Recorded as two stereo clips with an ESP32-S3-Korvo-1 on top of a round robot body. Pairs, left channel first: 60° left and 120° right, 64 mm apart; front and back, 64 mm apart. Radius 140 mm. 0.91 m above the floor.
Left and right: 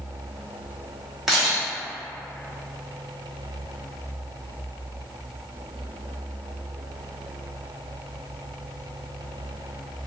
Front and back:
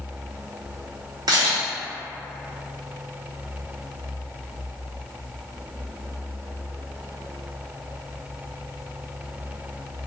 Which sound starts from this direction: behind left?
A camera shutter, at 1.3 s.